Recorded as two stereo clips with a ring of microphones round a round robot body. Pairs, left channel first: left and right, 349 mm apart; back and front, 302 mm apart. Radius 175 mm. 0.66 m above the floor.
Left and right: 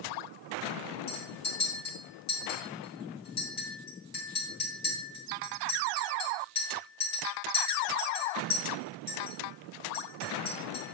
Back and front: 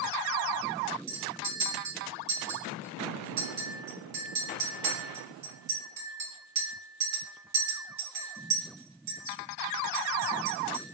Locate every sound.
1.1 s a clink: 25° left, 2 m